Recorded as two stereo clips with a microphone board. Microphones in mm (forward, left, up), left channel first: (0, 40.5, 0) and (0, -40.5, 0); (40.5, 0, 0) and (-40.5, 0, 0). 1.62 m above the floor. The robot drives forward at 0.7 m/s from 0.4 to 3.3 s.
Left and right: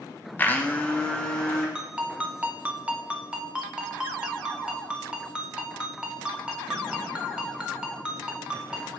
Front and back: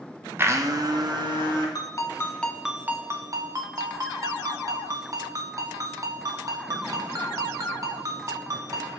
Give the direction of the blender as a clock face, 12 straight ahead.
7 o'clock.